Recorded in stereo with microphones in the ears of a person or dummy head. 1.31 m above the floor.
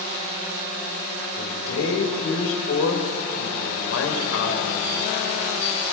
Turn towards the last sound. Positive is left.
turn(degrees=90)